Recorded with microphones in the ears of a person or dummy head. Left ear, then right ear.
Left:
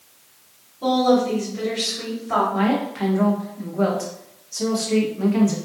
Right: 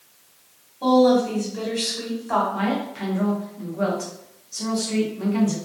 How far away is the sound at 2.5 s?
About 0.7 m.